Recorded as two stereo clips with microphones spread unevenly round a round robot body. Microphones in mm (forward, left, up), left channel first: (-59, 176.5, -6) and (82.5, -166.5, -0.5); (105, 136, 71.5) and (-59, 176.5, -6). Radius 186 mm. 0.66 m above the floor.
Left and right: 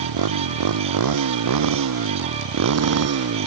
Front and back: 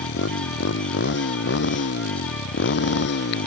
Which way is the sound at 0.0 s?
30° right.